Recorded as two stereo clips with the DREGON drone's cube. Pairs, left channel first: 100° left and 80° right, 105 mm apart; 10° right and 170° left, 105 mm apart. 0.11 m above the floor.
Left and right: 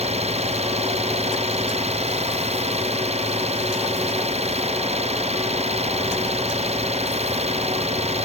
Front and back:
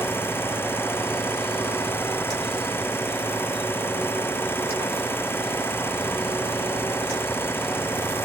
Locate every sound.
0.0 s an engine running: 80° right